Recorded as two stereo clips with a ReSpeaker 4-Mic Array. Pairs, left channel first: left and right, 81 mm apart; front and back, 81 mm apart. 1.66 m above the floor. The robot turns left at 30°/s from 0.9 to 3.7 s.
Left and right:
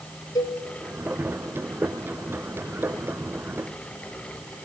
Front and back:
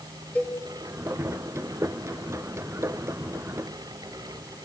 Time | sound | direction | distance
0.3 | a cowbell | 65° left | 1.6 m